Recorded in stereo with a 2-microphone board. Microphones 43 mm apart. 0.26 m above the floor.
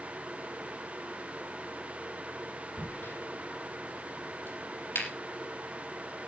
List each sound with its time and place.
2.8 s a crack: 70° left (ahead or behind), 6.5 m